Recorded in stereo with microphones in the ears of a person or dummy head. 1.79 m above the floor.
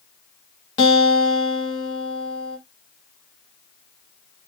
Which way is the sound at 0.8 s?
25° left (ahead or behind).